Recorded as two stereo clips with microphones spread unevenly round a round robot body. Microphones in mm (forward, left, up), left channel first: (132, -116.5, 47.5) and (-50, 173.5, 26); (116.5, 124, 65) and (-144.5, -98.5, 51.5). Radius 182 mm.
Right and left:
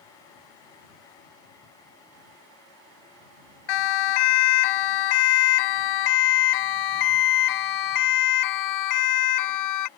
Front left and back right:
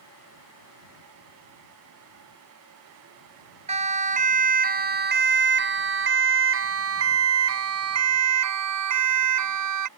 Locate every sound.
3.7 s a siren: 70° right; by 9.9 s 100° right